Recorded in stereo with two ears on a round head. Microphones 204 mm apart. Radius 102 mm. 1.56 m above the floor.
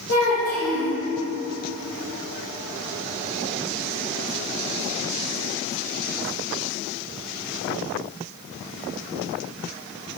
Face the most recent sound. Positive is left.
turn(degrees=65)  # may be behind; listen again after turning